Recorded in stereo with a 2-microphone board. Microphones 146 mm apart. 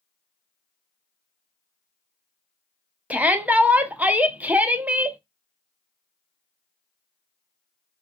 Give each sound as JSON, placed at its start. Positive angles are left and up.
{"t": 3.1, "sound": "a shout", "side_deg": -10, "distance_m": 0.7}